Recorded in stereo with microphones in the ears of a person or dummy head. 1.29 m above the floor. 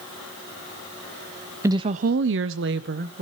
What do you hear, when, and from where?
1.6 s a woman speaking: 15° right (ahead or behind), 0.6 m; by 3.2 s 50° right (ahead or behind), 1.1 m